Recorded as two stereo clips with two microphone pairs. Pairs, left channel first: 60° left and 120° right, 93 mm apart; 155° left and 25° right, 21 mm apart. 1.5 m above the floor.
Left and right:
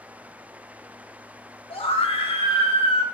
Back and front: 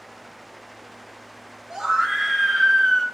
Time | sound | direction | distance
1.7 | a scream | 45° left | 1.4 m